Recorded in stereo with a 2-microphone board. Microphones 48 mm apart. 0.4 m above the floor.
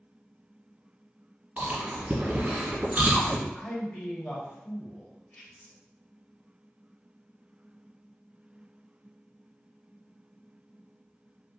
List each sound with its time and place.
1.6 s chewing: 30° right (ahead or behind), 1.1 m
3.5 s a man speaking: 20° left (ahead or behind), 1.3 m